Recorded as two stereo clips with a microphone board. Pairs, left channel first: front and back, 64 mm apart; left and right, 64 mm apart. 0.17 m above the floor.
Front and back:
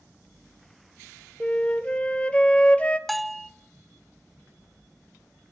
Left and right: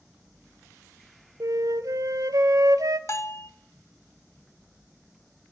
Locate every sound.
1.4 s a flute: 70° right, 0.9 m
3.1 s a bell: 90° left, 0.7 m